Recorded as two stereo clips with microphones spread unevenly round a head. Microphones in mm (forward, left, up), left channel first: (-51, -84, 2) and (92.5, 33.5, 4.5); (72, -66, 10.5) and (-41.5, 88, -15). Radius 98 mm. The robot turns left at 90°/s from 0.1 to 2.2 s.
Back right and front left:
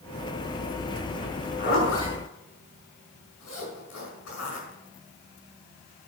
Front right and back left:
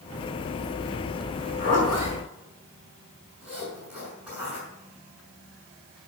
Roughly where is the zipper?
Right.